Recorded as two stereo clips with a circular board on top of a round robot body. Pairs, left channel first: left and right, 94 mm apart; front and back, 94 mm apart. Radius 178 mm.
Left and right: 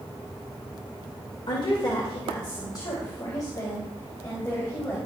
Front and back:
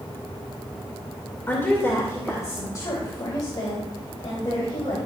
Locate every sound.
1.5 s a woman speaking: 65° left, 2.5 m; by 5.0 s 30° left, 4 m